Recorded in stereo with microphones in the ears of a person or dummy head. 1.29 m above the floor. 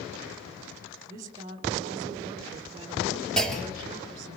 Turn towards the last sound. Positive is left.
turn(degrees=0)  # may be behind; listen again after turning